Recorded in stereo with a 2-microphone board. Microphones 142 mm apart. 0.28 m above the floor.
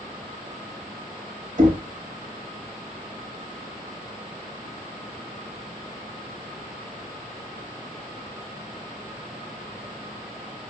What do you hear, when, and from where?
1.6 s knocking: 55° right (ahead or behind), 1.0 m